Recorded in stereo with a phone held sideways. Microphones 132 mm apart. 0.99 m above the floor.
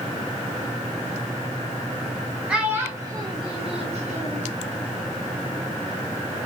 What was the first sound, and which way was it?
A child speaking, 5° right (ahead or behind).